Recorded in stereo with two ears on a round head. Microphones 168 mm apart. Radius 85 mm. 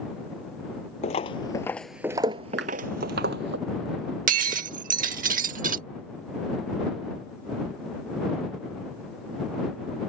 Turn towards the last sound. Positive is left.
turn(degrees=-45)  # may be behind; listen again after turning